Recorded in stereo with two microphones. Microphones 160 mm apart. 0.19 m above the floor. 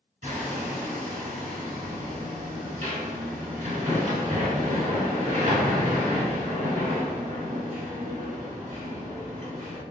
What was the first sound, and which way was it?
Hammering, 50° right (ahead or behind).